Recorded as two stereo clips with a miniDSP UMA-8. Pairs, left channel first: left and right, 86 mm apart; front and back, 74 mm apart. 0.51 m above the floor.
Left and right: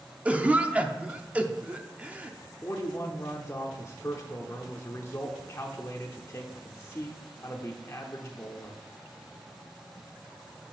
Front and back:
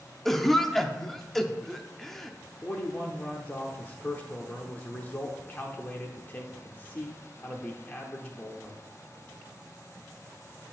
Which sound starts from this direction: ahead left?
A man speaking, at 2.6 s.